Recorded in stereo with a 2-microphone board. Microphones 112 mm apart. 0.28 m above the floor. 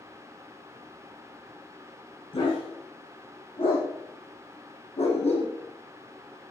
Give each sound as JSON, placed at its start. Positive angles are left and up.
{"t": 2.3, "sound": "a dog barking", "side_deg": 50, "distance_m": 9.0}